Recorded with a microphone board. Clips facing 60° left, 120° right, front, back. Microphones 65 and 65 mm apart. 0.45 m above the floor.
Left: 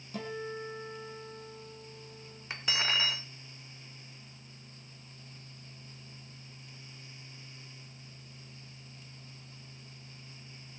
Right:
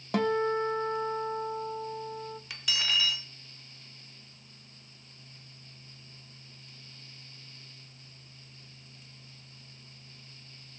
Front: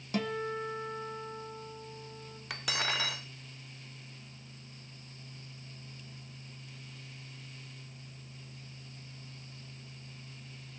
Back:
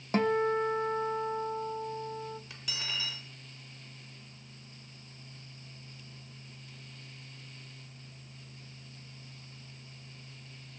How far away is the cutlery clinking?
About 0.8 m.